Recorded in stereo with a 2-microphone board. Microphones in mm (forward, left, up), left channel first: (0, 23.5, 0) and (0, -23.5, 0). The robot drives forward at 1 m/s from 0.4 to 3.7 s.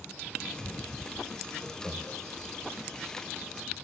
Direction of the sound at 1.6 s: Centre (ahead or behind).